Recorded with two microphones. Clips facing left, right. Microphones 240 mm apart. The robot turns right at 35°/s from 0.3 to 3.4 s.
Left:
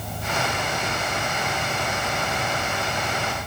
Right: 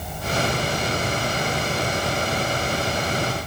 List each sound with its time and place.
Only background noise.